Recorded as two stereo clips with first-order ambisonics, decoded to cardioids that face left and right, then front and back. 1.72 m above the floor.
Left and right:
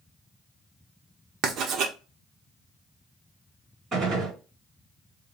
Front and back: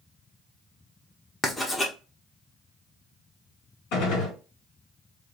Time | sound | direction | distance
1.4 | writing | 75° right | 0.7 m
3.9 | a gunshot | 20° right | 2.5 m